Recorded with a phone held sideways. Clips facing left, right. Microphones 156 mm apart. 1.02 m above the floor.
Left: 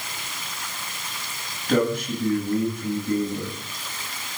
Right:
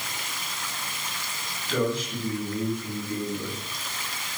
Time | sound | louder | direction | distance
1.7 | a man speaking | left 5 dB | 55° left (ahead or behind) | 9 m